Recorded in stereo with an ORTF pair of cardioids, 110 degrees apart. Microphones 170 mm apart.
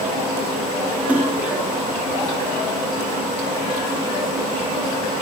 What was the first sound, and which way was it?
A splash, 10° right.